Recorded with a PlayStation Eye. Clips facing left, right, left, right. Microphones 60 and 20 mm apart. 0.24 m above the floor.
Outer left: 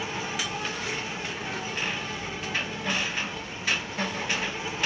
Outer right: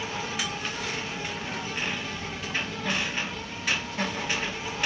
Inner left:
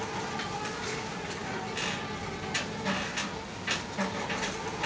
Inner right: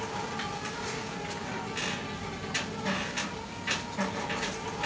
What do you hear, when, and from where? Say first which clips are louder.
0.0 s an insect: even, even; 15° left (ahead or behind), 3.5 m